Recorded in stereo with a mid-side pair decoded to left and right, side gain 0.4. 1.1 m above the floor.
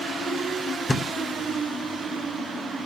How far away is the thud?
About 1.6 m.